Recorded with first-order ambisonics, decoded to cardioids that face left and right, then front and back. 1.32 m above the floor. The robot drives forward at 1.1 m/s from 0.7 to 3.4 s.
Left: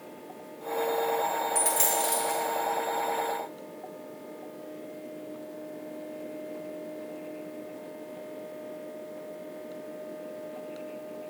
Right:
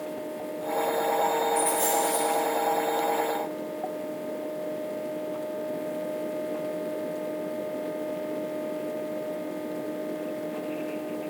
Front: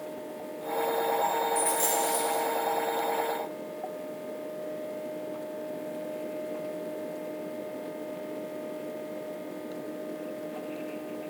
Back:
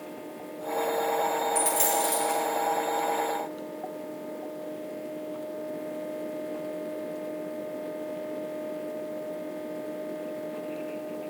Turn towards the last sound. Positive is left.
turn(degrees=155)